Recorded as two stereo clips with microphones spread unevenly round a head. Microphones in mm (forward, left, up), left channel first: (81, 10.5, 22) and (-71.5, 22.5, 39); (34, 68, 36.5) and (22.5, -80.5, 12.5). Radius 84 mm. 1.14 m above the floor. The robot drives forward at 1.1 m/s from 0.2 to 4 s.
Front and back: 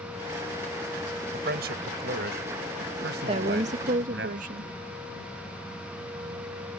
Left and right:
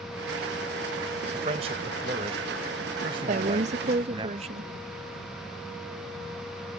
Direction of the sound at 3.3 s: 125° right.